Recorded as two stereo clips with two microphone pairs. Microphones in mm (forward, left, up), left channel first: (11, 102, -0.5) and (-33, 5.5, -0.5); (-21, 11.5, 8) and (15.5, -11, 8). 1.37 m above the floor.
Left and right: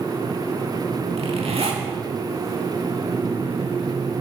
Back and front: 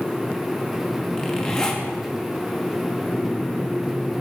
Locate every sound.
1.2 s a zipper: 140° right, 2 m